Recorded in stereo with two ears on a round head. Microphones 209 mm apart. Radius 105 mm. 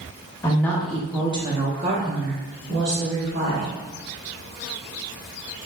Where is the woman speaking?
15° left (ahead or behind), 0.8 m; by 3.7 s 55° right (ahead or behind), 1.7 m.